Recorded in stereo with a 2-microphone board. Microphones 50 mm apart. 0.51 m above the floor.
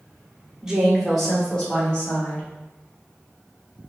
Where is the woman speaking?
15° right (ahead or behind), 0.9 m; by 2.4 s 25° left (ahead or behind), 1.7 m.